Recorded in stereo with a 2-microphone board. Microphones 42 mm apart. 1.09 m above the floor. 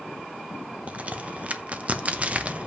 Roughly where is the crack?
Right.